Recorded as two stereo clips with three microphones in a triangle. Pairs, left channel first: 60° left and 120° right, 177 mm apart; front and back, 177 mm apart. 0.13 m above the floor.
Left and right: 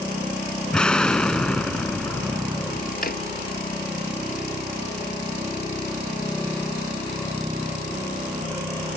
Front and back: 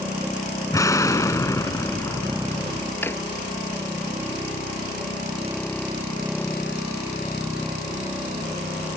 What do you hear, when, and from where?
0.7 s an explosion: 15° right
3.0 s a drawer: 75° left